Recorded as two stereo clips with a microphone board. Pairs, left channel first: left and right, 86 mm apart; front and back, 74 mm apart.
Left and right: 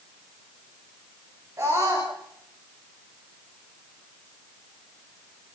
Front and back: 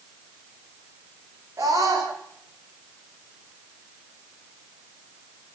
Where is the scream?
140° right, 9.5 m.